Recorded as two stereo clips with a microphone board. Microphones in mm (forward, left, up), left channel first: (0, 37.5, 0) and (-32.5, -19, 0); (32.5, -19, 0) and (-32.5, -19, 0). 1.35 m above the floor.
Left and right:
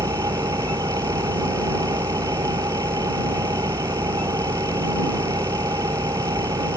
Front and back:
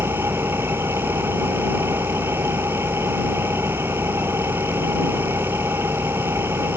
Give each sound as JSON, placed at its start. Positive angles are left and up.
{"t": 0.0, "sound": "an engine running", "azimuth_deg": -130}